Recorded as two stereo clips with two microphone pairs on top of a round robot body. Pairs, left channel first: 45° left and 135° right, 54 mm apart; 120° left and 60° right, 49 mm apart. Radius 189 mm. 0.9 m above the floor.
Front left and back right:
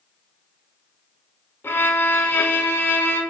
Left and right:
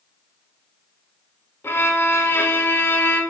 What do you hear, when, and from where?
1.6 s a violin: 85° left, 1.2 m